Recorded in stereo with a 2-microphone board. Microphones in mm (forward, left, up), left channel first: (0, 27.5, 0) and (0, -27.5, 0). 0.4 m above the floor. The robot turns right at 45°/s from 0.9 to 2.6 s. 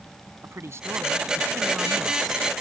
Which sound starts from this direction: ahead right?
A man speaking, at 0.4 s.